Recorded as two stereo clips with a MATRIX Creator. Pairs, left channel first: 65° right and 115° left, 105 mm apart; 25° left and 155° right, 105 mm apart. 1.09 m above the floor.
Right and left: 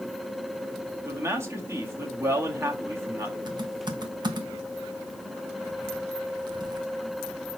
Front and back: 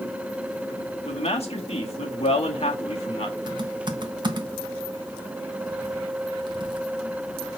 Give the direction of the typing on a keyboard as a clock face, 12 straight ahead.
7 o'clock.